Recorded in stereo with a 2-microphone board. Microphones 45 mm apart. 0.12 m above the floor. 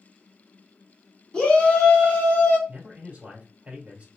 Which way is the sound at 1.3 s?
20° left (ahead or behind).